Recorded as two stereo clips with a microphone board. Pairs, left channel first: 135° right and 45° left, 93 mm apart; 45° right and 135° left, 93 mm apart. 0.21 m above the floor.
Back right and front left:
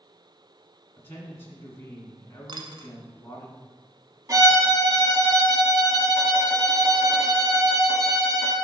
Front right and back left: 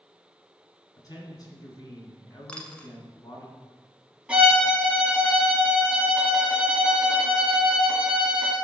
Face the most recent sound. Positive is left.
turn(degrees=65)